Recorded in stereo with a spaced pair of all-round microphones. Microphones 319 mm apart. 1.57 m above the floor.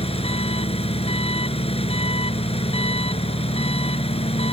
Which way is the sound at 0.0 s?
20° left (ahead or behind).